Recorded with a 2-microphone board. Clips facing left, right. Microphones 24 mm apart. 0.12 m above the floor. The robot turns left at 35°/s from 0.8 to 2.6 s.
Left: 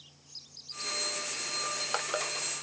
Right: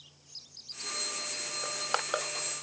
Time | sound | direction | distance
1.6 | crushing | 15° right (ahead or behind) | 0.8 m